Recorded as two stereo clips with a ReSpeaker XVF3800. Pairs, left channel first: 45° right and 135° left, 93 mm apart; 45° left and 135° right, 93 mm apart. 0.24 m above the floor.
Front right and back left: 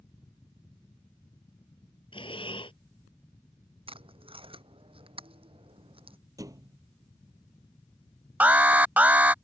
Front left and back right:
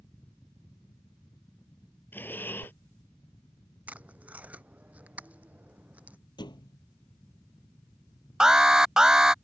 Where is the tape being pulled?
150° left.